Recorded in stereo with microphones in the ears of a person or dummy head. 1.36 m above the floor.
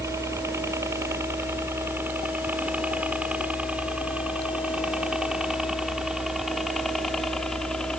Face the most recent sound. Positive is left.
turn(degrees=5)  # may be behind; listen again after turning